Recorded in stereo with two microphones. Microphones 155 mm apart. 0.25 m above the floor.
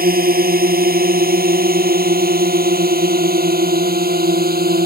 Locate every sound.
0.0 s a drone: 75° right (ahead or behind); by 4.9 s 80° right